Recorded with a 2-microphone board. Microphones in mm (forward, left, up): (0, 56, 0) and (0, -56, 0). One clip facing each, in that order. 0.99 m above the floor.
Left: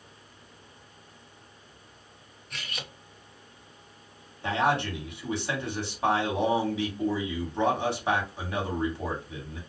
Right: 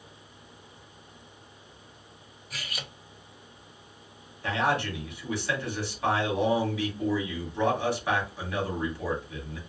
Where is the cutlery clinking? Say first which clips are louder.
Even; 5° right (ahead or behind), 0.6 m.